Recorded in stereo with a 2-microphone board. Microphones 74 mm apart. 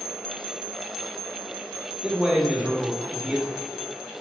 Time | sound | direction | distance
2.0 | a man speaking | 10° right (ahead or behind) | 1.3 m